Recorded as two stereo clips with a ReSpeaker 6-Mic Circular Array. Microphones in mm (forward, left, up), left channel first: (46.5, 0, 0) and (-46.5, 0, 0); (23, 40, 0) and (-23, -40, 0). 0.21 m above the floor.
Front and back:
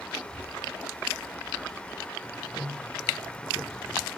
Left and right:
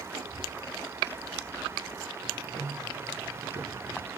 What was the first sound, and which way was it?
A child speaking, 115° right.